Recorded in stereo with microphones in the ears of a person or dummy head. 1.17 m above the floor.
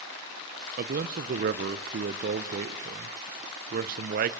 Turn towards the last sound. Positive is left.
turn(degrees=-50)  # may be behind; listen again after turning